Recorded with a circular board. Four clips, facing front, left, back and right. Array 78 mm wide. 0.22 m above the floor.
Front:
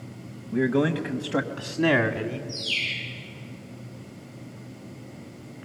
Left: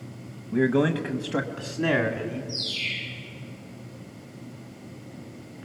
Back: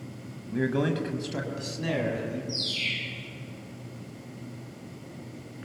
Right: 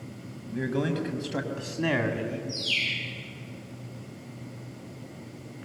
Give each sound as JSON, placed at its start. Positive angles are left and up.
{"t": 0.5, "sound": "a man speaking", "azimuth_deg": 85, "distance_m": 1.1}
{"t": 2.5, "sound": "a bird", "azimuth_deg": -50, "distance_m": 10.0}